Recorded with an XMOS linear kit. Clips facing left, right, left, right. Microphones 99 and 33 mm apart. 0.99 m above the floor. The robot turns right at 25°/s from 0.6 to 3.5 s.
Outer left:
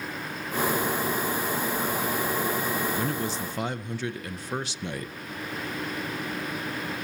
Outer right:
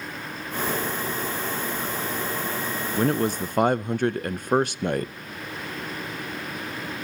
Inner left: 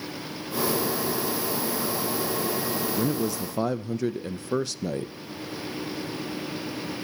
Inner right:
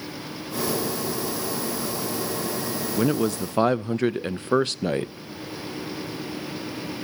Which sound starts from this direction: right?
A man speaking, at 3.0 s.